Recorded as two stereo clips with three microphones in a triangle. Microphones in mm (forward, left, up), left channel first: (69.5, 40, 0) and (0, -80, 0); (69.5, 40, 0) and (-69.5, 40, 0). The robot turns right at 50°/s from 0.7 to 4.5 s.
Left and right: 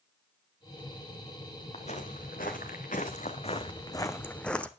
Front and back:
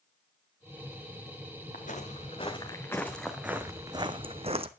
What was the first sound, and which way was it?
Footsteps, 20° left.